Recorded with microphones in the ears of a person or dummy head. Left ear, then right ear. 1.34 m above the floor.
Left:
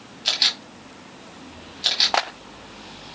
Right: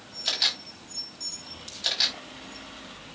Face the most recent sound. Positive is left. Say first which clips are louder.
# left 5 dB
turn(degrees=5)  # may be behind; listen again after turning